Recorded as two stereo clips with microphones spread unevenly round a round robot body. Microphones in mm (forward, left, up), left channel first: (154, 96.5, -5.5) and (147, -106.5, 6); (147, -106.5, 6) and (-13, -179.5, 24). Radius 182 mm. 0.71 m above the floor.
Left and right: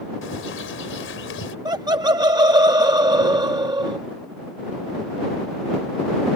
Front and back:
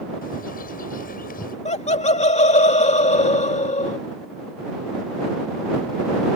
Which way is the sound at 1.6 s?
20° right.